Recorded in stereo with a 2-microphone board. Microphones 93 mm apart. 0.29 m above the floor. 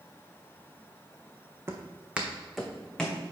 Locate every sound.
1.7 s footsteps: 25° right (ahead or behind), 0.9 m; by 3.2 s 10° left (ahead or behind), 1.3 m